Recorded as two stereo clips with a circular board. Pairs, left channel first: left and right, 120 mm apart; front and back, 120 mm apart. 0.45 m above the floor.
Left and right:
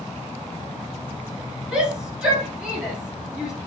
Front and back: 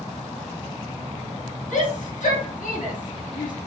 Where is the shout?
10° right, 6.5 m.